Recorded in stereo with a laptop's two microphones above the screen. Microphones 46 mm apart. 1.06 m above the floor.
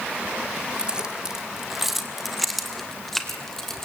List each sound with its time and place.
0.8 s keys jangling: 20° right (ahead or behind), 1.9 m; by 3.9 s 10° left (ahead or behind), 4 m